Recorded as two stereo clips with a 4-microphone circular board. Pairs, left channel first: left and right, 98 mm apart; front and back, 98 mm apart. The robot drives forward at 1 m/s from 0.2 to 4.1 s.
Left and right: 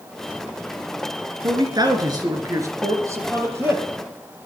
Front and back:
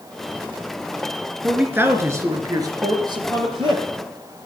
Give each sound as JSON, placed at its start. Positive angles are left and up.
{"t": 1.4, "sound": "a man speaking", "azimuth_deg": -105, "distance_m": 2.0}